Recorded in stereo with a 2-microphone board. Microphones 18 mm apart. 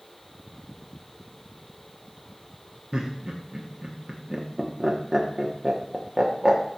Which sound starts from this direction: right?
Laughter, at 2.9 s.